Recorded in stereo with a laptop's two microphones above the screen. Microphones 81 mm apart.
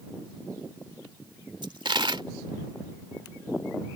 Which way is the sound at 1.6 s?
80° right.